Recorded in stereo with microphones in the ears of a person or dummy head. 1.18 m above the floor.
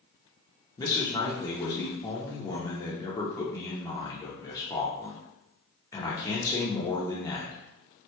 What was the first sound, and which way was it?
A man speaking, 15° left (ahead or behind).